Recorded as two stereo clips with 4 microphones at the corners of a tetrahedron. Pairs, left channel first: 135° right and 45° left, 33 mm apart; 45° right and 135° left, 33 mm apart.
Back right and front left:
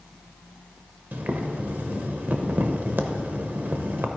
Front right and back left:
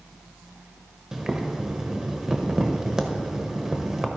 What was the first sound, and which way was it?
Boiling, 60° left.